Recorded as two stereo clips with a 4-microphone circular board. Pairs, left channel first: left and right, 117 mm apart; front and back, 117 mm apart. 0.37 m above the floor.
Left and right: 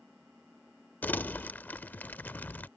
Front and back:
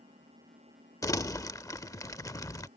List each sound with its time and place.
0.0 s an engine running: 175° right
1.0 s crumpling: 30° left